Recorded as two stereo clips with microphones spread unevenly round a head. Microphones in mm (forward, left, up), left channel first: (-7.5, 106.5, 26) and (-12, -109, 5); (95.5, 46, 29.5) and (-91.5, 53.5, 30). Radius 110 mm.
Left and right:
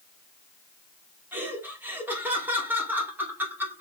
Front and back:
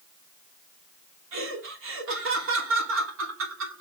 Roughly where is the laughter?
Behind.